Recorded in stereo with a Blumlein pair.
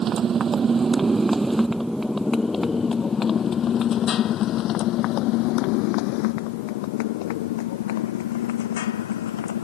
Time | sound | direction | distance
0.0 | a motorcycle | 25° right | ?